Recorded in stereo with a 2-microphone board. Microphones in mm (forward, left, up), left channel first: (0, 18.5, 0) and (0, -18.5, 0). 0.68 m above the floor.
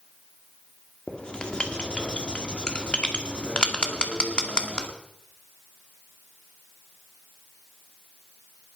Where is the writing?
25° left (ahead or behind), 2.0 m.